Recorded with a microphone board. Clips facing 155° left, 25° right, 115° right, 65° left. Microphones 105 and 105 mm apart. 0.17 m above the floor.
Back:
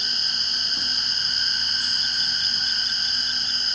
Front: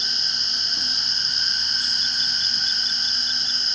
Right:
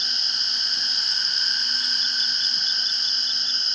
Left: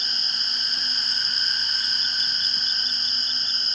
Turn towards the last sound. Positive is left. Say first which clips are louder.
# even, even
turn(degrees=115)